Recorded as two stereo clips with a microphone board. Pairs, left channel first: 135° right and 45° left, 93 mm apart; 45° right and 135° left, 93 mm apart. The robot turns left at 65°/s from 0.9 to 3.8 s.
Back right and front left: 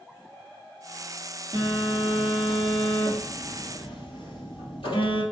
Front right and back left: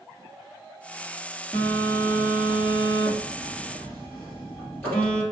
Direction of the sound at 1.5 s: 30° left.